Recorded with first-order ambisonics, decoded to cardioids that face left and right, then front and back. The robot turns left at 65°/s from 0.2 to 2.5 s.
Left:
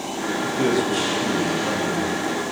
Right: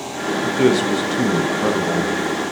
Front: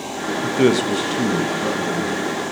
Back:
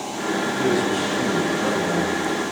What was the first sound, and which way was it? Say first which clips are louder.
A man speaking: right 5 dB, front 5 dB; 5° right.